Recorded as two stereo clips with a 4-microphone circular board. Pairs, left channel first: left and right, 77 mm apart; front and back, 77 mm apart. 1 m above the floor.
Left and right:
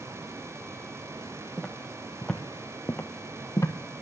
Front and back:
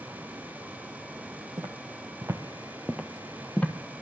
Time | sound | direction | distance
1.6 | footsteps | 165° right | 1.6 m